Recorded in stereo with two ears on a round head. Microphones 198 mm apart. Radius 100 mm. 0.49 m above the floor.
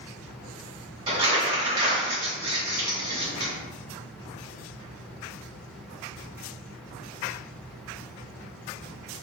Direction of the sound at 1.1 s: 25° right (ahead or behind).